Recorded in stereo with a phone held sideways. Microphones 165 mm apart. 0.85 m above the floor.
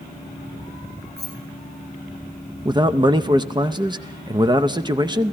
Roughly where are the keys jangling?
Right.